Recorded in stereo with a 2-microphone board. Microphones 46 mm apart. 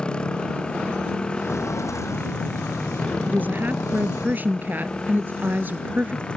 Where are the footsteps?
75° left (ahead or behind); by 4.3 s 90° left.